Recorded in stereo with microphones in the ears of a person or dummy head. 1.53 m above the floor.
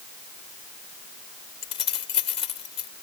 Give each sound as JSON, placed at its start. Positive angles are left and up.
{"t": 1.6, "sound": "keys jangling", "side_deg": 30}